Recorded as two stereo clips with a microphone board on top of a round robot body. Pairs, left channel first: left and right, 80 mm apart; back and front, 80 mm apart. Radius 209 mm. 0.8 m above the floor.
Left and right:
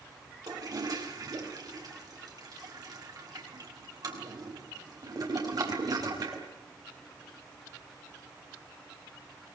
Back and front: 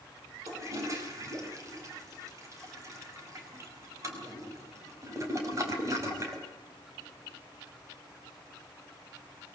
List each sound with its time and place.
0.5 s a toilet flushing: 50° right, 5 m